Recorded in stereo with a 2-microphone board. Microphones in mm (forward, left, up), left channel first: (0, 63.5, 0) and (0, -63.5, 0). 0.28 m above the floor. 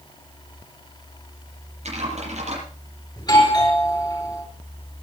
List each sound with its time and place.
1.9 s typing on a keyboard: 60° right (ahead or behind), 9 m
3.2 s a doorbell: 35° left (ahead or behind), 6 m